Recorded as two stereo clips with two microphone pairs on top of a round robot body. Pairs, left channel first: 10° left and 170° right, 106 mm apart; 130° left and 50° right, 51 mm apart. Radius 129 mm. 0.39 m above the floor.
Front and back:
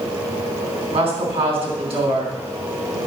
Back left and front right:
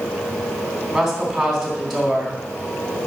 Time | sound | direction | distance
0.9 | a woman speaking | 135° right | 3.5 m